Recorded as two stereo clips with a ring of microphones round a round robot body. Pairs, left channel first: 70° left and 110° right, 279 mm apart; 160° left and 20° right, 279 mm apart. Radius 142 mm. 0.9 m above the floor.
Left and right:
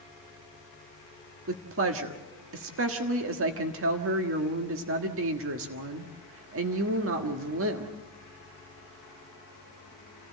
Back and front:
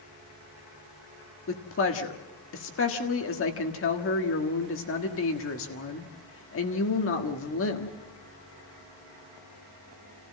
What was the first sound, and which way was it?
A woman speaking, 155° right.